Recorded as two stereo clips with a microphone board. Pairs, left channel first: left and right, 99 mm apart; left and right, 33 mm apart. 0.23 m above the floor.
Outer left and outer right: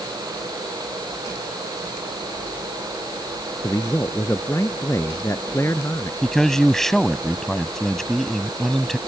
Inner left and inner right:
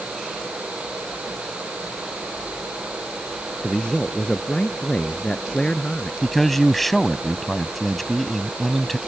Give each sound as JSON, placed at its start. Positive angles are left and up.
{"t": 3.6, "sound": "a man speaking", "side_deg": 30}
{"t": 6.2, "sound": "a man speaking", "side_deg": 5}